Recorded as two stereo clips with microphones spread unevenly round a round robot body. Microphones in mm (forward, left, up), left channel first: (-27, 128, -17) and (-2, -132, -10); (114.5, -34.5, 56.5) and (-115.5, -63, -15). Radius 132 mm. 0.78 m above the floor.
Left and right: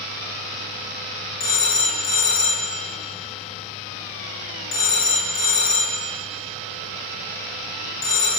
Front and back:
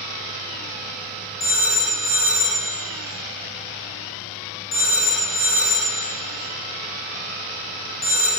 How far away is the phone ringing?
About 0.8 m.